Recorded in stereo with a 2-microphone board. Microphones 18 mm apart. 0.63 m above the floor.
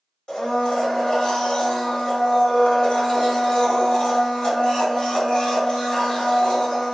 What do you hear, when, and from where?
0.3 s a blender: 40° left (ahead or behind), 1.2 m